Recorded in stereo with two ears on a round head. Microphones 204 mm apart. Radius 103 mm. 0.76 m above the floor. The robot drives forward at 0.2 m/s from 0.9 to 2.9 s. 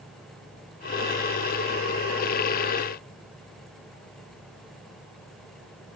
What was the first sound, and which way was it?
Only background noise.